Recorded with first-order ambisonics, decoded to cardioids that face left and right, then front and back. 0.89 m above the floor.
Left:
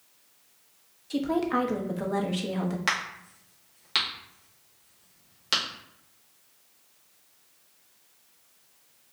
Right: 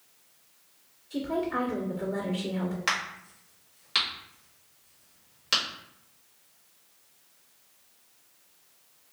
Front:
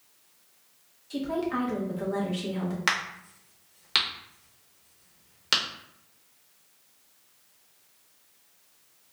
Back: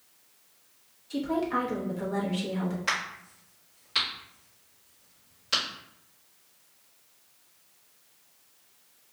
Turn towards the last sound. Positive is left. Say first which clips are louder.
# even, front 3 dB
turn(degrees=10)